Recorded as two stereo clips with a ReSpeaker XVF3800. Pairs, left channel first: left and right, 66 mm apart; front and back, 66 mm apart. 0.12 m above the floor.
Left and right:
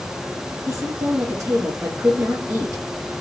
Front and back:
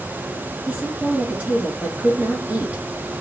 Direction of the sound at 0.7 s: 110° right.